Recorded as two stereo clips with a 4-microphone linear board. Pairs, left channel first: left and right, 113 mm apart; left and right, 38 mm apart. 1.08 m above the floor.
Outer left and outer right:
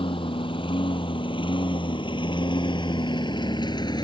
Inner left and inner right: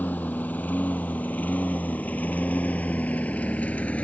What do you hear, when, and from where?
0.0 s a lawn mower: 50° left (ahead or behind); by 4.0 s 40° left (ahead or behind)